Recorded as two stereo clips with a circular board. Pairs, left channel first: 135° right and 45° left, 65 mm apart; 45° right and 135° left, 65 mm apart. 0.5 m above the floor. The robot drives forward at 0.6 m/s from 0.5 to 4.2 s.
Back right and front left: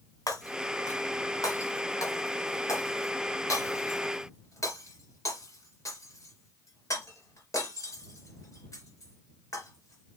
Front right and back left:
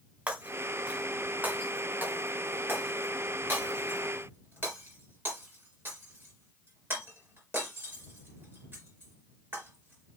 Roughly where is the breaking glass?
Behind right.